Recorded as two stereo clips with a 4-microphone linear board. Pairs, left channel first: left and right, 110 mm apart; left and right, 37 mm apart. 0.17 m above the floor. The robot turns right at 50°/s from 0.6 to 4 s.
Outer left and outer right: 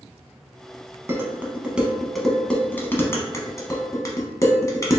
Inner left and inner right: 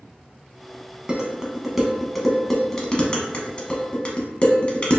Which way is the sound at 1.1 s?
25° right (ahead or behind).